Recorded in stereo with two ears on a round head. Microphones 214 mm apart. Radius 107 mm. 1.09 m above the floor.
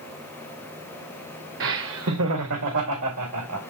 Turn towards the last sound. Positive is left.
turn(degrees=-80)